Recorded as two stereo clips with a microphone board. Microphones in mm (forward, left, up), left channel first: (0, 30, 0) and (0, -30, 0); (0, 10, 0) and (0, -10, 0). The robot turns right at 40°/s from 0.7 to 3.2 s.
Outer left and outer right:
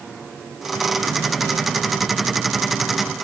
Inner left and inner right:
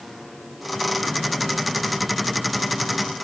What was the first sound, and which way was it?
Only background noise.